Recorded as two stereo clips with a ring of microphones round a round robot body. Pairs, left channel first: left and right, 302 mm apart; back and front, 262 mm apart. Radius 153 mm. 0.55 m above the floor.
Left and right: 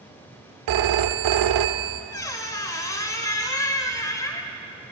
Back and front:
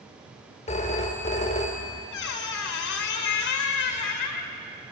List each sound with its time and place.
0.7 s a phone ringing: 110° right, 0.8 m
2.1 s a squeak: 170° left, 1.1 m